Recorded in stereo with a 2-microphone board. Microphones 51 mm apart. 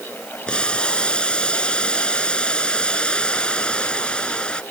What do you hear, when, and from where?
0.5 s boiling: 20° left (ahead or behind)